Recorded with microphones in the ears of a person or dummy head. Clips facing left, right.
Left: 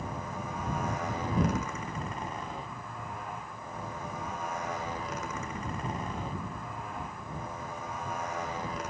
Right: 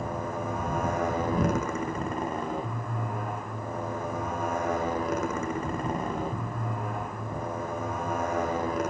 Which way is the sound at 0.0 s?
50° right (ahead or behind).